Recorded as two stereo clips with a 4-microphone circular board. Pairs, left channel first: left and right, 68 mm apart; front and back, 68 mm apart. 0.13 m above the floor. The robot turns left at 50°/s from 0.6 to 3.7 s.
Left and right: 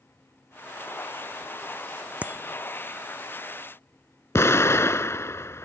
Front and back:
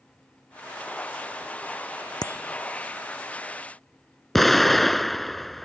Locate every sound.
2.2 s a bicycle bell: 20° right; by 2.6 s 40° right
4.3 s an explosion: 85° left